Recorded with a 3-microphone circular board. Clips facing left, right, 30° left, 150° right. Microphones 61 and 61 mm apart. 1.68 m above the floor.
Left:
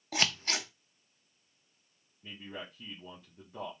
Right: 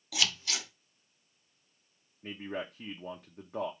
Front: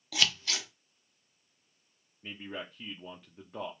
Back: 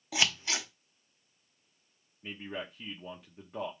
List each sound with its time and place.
0.1 s scissors: 140° left, 0.7 m
2.2 s a man speaking: 60° right, 0.8 m